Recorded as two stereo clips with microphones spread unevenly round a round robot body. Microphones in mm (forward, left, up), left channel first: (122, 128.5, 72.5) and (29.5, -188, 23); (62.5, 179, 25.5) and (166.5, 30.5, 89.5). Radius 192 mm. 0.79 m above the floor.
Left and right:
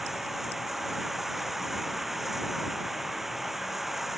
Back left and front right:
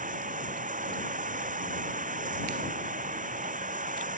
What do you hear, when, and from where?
0.0 s running water: 15° right